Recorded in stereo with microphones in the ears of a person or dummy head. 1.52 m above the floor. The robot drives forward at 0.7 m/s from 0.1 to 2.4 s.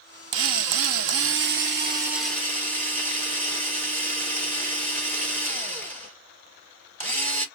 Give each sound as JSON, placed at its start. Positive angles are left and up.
{"t": 0.3, "sound": "a drill", "side_deg": -70, "distance_m": 0.9}